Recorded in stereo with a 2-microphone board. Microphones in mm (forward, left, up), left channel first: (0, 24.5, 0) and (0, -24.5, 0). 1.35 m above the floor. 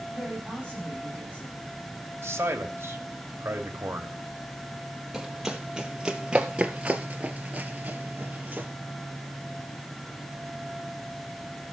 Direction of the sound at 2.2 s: 65° right (ahead or behind).